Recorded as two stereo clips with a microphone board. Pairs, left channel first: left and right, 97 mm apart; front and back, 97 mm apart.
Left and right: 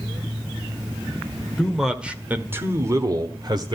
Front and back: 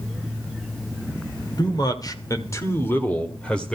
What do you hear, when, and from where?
1.6 s a man speaking: straight ahead, 1.8 m; by 3.7 s 80° right, 1.8 m